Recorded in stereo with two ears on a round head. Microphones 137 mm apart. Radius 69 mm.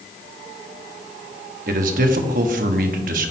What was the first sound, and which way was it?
A man speaking, 60° right (ahead or behind).